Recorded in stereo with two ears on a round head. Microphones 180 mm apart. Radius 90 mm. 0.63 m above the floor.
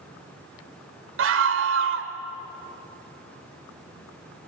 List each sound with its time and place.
1.2 s a scream: 70° right (ahead or behind), 2 m